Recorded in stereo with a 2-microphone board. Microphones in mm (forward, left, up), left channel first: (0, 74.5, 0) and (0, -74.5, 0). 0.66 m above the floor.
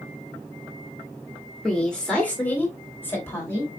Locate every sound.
1.6 s a woman speaking: 5° left (ahead or behind), 1.6 m; by 3.7 s 20° left (ahead or behind), 2.5 m